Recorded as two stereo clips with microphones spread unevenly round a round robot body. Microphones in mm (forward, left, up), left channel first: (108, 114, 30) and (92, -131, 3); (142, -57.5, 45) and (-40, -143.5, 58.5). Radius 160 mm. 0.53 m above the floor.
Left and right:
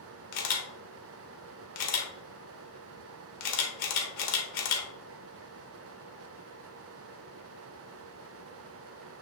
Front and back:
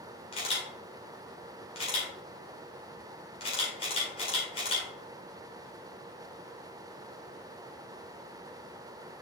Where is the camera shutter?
90° left, 1.6 m.